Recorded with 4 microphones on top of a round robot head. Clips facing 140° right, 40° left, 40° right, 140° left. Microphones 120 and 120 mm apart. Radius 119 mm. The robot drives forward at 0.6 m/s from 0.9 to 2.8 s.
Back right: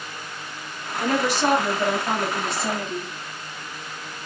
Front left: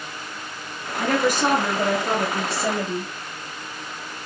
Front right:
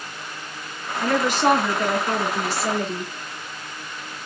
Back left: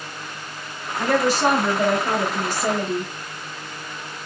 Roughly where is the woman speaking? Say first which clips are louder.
Front left 1 dB, back left 1 dB; left.